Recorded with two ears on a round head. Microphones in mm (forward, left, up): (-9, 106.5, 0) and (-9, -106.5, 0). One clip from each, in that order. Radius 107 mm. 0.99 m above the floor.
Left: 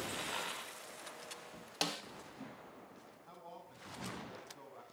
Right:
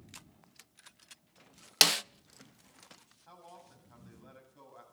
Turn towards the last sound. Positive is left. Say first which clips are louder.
# even
turn(degrees=-20)  # may be behind; listen again after turning